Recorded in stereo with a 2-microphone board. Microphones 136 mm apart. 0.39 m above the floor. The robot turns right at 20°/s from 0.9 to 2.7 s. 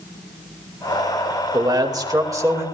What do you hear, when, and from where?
1.5 s a man speaking: 30° right (ahead or behind), 1.3 m; by 2.6 s 20° right (ahead or behind), 1.3 m